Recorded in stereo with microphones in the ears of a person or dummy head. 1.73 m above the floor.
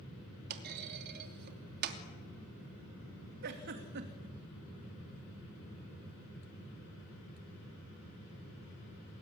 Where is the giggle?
55° right (ahead or behind), 2.5 m.